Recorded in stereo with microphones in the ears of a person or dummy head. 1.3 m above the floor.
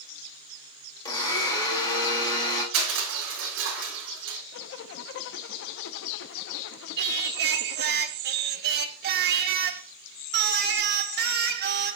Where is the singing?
55° right (ahead or behind), 0.7 m.